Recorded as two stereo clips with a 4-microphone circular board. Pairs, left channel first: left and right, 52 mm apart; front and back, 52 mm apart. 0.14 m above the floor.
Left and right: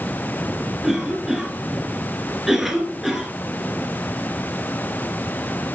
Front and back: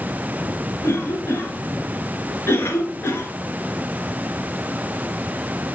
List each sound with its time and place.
0.8 s a cough: 5° right, 2.0 m